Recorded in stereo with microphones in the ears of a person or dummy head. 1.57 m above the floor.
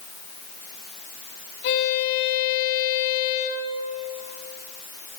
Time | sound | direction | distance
1.6 | a violin | 65° left (ahead or behind) | 3.5 m